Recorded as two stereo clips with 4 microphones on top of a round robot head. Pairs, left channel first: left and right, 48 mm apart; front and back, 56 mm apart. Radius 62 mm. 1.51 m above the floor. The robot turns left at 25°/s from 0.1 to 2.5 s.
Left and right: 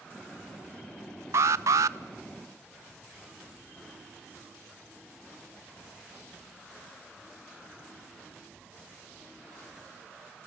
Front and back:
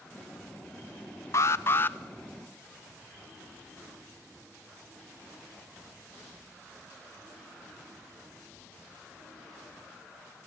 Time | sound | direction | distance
1.3 | an alarm | 50° right | 0.6 m